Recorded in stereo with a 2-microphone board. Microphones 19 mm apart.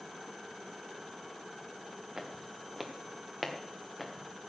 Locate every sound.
2.2 s footsteps: 25° right (ahead or behind), 2 m; by 4.3 s centre (ahead or behind), 2.5 m